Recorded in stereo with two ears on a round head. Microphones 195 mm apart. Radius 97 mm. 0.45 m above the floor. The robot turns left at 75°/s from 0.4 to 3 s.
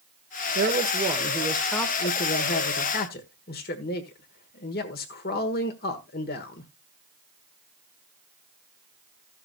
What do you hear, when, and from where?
0.6 s a man speaking: 100° right, 1.3 m; by 6.7 s 75° left, 1.3 m